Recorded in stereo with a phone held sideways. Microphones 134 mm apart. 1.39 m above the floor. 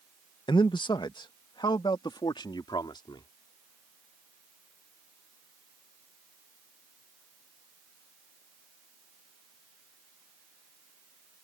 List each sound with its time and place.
0.5 s a man speaking: 35° left (ahead or behind)